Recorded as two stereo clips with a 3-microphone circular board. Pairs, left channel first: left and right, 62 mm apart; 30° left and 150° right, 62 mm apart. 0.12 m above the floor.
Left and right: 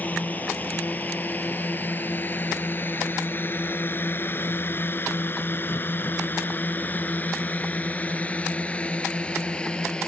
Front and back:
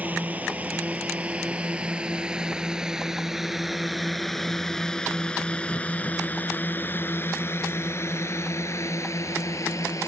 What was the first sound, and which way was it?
A drone, 150° left.